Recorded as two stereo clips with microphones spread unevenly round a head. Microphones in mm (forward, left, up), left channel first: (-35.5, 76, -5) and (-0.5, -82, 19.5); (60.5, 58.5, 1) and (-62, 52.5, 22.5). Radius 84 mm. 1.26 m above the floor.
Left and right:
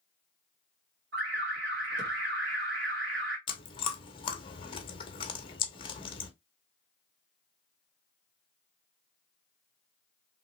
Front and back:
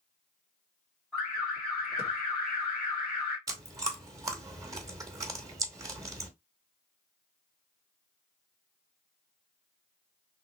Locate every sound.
1.1 s an alarm: 85° right, 1.8 m
3.5 s chewing: 160° left, 0.9 m